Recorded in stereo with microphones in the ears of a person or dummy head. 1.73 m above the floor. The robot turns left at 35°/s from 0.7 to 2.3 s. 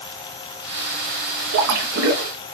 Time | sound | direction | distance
1.5 | a splash | 70° right (ahead or behind) | 1.1 m